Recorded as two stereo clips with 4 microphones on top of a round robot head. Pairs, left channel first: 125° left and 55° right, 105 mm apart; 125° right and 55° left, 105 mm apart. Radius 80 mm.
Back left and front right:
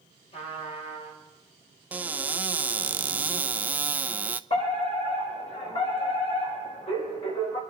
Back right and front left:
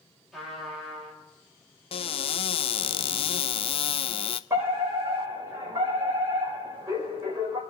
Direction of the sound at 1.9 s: 125° right.